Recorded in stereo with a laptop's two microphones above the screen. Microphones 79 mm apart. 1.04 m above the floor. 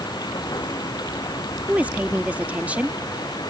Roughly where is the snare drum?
I don't hear a snare drum.